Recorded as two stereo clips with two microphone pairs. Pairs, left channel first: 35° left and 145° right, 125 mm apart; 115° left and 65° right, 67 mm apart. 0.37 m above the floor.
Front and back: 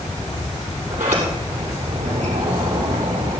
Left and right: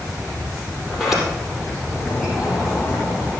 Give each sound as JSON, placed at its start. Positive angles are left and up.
{"t": 0.9, "sound": "a sliding door", "azimuth_deg": -150, "distance_m": 6.5}